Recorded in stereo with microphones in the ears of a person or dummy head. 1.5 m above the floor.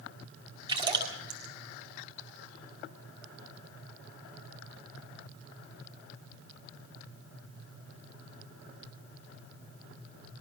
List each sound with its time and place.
0.7 s a splash: 25° right (ahead or behind), 4.5 m